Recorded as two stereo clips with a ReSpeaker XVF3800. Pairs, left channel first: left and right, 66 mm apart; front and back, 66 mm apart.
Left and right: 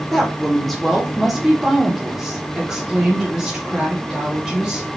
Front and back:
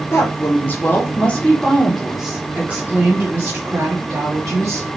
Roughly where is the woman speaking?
Ahead.